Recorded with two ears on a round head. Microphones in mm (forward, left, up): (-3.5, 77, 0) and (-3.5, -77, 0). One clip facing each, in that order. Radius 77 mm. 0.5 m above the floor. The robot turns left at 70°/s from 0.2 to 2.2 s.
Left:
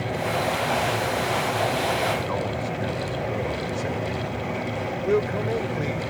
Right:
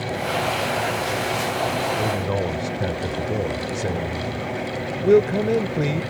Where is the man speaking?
50° right (ahead or behind); by 6.0 s 35° right (ahead or behind).